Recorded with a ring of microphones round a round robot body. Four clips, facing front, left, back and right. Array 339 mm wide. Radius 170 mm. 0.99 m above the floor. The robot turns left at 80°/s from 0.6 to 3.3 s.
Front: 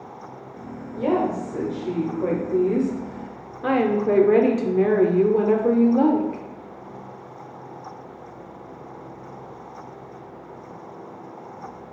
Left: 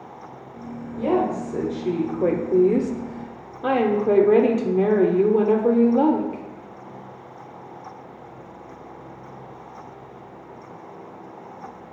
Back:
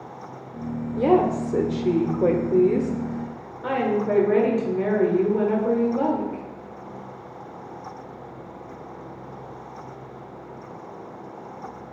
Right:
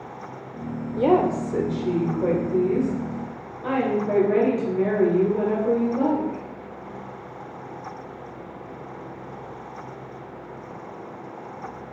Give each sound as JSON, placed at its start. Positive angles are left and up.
{"t": 1.0, "sound": "a woman speaking", "azimuth_deg": -115, "distance_m": 0.7}